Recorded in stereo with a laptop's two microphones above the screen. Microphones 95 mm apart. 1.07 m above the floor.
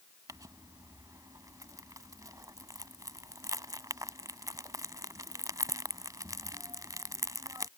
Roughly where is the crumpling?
Right.